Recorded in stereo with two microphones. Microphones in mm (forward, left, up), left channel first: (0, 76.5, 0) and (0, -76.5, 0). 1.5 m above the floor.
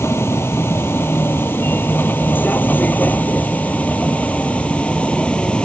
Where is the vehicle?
15° left (ahead or behind); by 5.7 s 5° left (ahead or behind).